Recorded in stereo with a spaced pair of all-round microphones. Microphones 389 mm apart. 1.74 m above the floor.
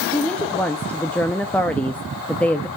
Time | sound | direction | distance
0.1 | a woman speaking | 5° left (ahead or behind) | 0.7 m